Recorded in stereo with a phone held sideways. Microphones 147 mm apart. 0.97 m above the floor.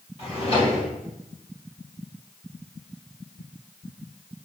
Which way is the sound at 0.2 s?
40° left (ahead or behind).